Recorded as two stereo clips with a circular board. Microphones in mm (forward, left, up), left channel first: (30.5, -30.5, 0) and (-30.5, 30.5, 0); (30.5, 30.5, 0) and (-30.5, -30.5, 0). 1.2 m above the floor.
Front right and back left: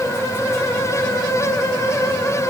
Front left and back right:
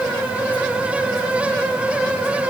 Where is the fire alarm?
I don't hear a fire alarm.